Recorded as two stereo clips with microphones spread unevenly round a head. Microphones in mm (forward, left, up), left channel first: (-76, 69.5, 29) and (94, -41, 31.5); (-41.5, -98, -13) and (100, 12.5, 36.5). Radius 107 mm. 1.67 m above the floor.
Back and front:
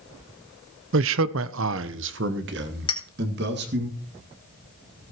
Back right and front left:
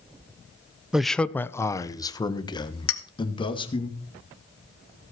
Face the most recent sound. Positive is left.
turn(degrees=-145)